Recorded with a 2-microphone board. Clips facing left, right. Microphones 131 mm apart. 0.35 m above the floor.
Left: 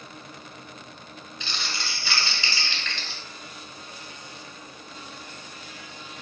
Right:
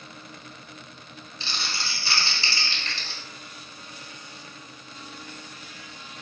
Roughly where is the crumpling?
Right.